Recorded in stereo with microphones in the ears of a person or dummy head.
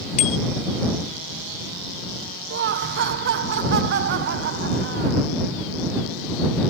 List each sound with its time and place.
0.2 s a bicycle bell: 40° left (ahead or behind)
2.5 s laughter: 60° right (ahead or behind)